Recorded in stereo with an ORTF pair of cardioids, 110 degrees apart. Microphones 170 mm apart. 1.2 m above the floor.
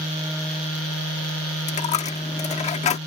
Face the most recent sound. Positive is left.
turn(degrees=45)